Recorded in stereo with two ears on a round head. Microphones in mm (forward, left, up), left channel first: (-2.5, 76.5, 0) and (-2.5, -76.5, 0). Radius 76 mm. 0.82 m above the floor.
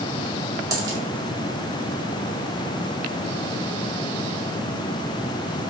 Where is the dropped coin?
20° right (ahead or behind), 1.4 m.